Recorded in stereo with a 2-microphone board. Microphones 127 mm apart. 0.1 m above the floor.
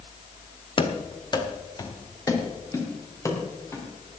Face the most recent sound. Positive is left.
turn(degrees=20)  # may be behind; listen again after turning